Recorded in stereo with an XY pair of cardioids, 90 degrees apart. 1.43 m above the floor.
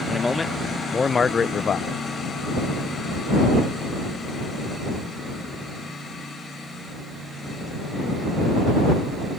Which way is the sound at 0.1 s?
20° left.